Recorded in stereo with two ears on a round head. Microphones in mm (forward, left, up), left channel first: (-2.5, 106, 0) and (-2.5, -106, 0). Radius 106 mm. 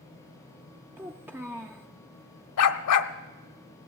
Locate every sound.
1.0 s a child speaking: 10° right (ahead or behind), 0.5 m
2.6 s a dog barking: 75° left (ahead or behind), 0.8 m